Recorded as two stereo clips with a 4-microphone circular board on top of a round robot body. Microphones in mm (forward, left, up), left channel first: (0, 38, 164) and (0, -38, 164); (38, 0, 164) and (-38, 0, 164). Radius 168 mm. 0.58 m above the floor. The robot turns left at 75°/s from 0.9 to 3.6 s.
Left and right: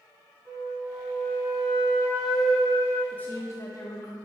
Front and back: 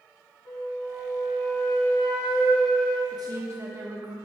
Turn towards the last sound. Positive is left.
turn(degrees=130)